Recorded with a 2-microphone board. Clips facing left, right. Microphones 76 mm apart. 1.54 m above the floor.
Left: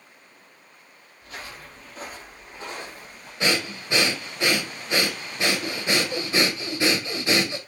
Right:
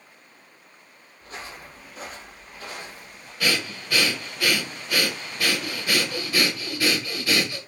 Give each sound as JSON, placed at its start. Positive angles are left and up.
{"t": 1.2, "sound": "footsteps", "side_deg": -35, "distance_m": 1.9}
{"t": 3.4, "sound": "breathing", "side_deg": 25, "distance_m": 0.7}